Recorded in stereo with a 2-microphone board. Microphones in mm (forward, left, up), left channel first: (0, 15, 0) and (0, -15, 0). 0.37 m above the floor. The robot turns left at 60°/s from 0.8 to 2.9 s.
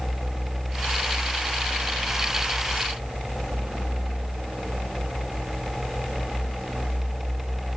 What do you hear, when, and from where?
Only background noise.